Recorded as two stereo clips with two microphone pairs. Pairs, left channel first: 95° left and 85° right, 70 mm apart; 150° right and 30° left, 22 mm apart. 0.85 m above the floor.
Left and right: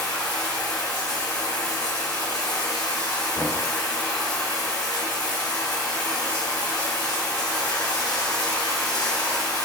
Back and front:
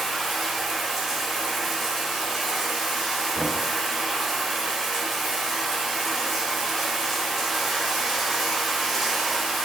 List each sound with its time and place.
0.0 s running water: 110° left, 1.8 m
3.4 s knocking: 105° left, 0.9 m